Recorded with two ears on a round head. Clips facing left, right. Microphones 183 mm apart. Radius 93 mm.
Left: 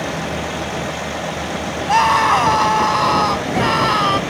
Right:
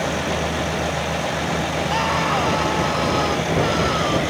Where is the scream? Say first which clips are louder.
Left 5 dB; 70° left (ahead or behind); by 4.2 s 75° left (ahead or behind).